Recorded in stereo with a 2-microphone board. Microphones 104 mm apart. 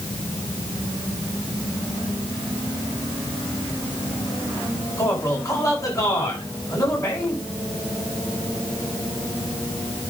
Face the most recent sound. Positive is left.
turn(degrees=30)  # may be behind; listen again after turning